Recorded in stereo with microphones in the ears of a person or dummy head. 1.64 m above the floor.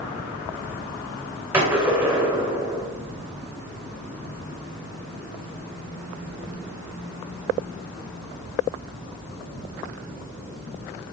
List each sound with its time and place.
1.5 s a gunshot: 10° right (ahead or behind), 2.5 m